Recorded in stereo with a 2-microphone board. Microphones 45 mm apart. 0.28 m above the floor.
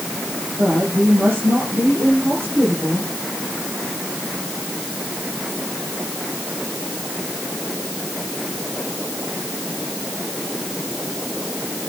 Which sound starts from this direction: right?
A woman speaking, at 0.6 s.